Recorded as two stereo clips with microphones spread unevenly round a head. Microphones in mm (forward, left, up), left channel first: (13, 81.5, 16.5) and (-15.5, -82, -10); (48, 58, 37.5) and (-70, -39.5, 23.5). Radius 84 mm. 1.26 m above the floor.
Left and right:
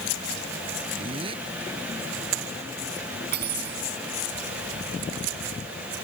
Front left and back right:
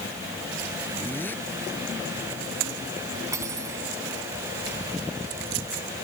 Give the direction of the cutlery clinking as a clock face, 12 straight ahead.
2 o'clock.